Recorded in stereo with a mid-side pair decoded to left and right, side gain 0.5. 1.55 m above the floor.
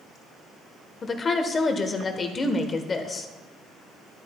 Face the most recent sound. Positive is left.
turn(degrees=40)